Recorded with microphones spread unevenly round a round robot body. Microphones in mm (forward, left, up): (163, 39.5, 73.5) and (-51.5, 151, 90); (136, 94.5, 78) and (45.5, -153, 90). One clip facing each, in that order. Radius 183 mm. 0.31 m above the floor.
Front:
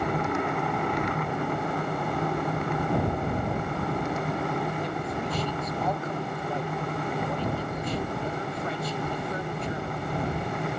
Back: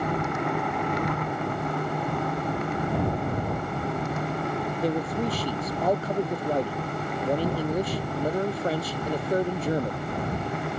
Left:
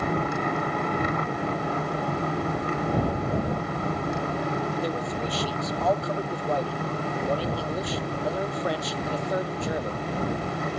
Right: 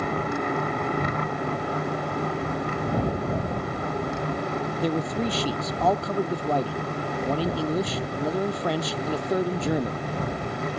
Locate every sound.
4.8 s a man speaking: 140° right